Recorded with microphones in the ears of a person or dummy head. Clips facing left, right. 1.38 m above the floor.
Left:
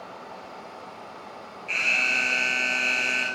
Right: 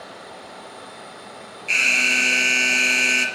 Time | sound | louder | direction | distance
1.7 | an alarm | right 5 dB | 60° right (ahead or behind) | 3.5 m